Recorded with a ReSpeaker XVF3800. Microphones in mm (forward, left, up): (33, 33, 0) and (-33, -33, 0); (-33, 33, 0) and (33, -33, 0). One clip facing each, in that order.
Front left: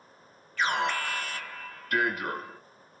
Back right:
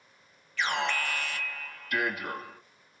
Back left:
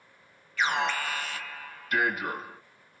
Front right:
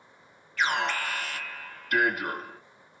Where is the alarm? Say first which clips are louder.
Front left 2 dB, even; 45° left, 3 m.